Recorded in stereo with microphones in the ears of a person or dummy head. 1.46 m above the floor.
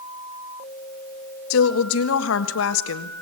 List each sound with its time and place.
1.5 s a woman speaking: 75° left (ahead or behind), 1.6 m